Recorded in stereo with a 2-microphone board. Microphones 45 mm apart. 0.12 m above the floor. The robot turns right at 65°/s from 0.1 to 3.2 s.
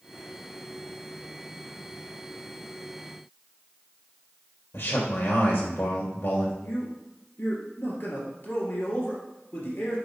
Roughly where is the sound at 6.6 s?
Left.